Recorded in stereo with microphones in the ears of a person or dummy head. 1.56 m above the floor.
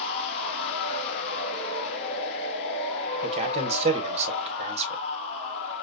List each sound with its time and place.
0.0 s a machine running: 40° left (ahead or behind), 2 m
3.2 s a man speaking: 30° right (ahead or behind), 1.6 m